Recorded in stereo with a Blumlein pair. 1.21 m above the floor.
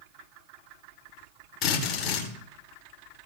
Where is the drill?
40° left, 8.5 m.